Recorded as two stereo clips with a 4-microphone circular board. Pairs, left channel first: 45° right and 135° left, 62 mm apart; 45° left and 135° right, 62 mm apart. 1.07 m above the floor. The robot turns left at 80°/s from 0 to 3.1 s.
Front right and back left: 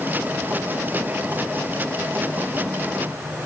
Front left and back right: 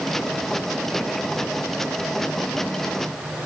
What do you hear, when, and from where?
Only background noise.